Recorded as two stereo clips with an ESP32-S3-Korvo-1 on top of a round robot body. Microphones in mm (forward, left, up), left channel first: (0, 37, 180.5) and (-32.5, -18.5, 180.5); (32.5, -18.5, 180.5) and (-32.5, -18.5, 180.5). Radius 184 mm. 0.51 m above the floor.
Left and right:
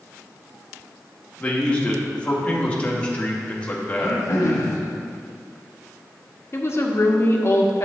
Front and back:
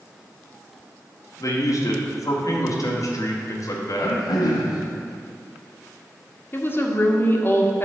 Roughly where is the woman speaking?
Ahead left.